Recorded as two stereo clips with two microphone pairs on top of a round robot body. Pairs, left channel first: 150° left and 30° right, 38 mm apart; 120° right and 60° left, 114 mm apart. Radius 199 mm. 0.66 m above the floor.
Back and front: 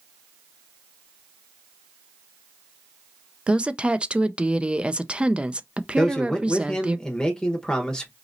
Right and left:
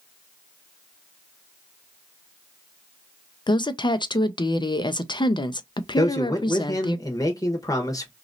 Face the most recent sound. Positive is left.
turn(degrees=-150)